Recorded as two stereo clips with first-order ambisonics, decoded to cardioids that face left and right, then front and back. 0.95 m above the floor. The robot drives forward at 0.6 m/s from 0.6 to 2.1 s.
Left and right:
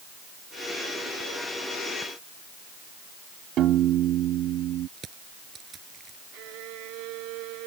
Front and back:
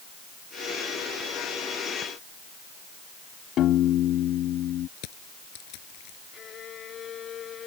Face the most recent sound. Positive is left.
turn(degrees=-60)